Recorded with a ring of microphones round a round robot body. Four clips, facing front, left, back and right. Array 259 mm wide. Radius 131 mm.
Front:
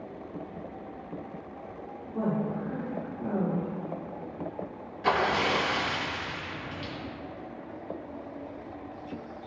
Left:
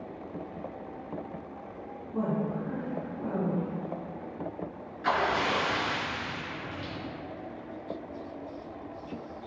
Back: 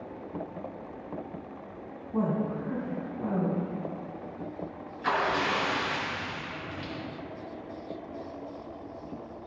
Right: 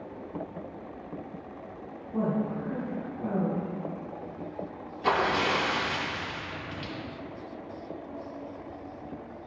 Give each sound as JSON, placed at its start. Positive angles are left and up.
{"t": 2.1, "sound": "a woman speaking", "azimuth_deg": -165, "distance_m": 3.5}
{"t": 5.0, "sound": "a splash", "azimuth_deg": -45, "distance_m": 3.0}